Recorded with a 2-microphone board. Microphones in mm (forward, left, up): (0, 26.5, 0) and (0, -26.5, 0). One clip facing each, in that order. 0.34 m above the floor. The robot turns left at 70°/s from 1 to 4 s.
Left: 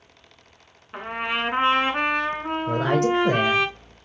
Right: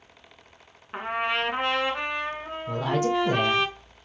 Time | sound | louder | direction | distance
0.9 | a trumpet | even | 170° right | 1.0 m
2.7 | a woman speaking | left 3 dB | 90° left | 3.5 m